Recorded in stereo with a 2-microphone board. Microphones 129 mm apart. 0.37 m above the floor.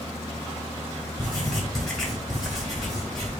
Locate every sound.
1.2 s writing: 5° left (ahead or behind), 2.5 m